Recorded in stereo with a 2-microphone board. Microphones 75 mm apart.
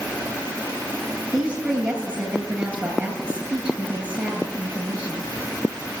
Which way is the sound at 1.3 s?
15° right (ahead or behind).